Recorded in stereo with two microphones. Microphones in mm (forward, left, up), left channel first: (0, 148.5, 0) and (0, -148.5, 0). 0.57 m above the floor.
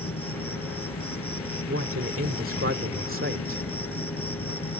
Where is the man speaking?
45° right (ahead or behind).